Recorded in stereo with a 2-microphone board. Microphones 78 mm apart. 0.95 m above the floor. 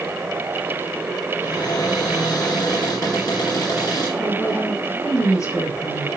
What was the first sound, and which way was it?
A cupboard door, 60° left (ahead or behind).